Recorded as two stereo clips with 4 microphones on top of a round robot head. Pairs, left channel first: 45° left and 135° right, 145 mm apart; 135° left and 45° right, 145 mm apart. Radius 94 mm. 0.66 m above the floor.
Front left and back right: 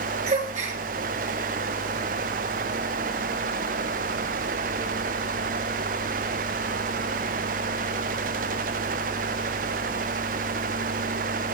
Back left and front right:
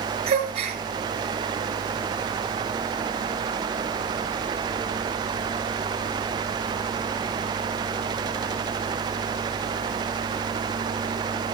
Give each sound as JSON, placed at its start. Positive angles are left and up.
{"t": 0.3, "sound": "a gasp", "azimuth_deg": -95, "distance_m": 6.5}